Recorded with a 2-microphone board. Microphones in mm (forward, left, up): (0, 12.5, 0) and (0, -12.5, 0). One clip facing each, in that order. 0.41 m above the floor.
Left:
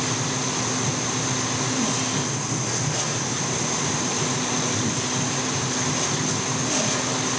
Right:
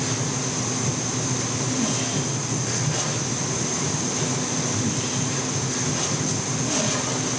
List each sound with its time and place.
Only background noise.